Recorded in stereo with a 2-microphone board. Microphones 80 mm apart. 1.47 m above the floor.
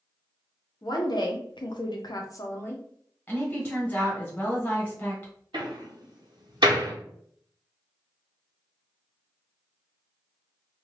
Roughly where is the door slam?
Right.